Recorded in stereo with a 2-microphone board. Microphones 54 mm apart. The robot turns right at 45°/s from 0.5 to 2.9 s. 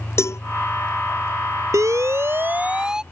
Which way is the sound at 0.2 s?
55° left (ahead or behind).